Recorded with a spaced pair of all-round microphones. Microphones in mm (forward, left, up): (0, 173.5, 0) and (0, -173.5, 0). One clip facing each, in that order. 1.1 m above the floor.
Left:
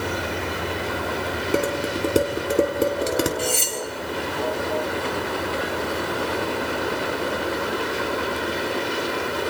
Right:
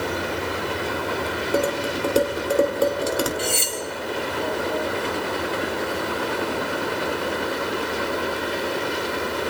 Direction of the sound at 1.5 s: 30° left (ahead or behind).